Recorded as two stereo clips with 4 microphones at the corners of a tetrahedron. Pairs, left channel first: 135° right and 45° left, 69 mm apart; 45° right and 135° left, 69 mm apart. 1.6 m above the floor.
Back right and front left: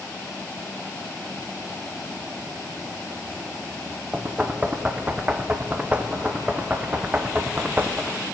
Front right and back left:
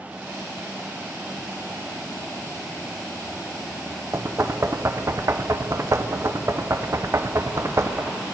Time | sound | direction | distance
4.1 | knocking | 105° left | 0.5 m